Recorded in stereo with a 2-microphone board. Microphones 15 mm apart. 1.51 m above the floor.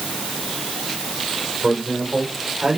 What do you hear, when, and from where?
1.6 s a man speaking: 45° right (ahead or behind), 6.5 m; by 2.8 s 50° right (ahead or behind), 6.5 m